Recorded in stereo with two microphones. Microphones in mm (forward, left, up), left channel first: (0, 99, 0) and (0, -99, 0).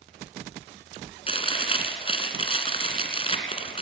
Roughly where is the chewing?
Left.